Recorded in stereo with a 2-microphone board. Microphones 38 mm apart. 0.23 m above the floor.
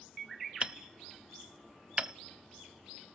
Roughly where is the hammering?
Right.